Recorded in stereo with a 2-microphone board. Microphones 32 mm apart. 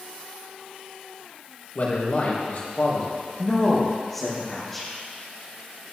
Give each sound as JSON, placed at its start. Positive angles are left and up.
{"t": 1.8, "sound": "a man speaking", "side_deg": 55, "distance_m": 4.0}
{"t": 3.4, "sound": "a woman speaking", "side_deg": 5, "distance_m": 5.0}